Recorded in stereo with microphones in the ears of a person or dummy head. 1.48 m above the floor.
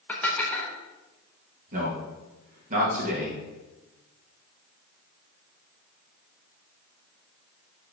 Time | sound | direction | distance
0.1 | dishes clattering | 10° left (ahead or behind) | 0.8 m
1.7 | a man speaking | 40° right (ahead or behind) | 2 m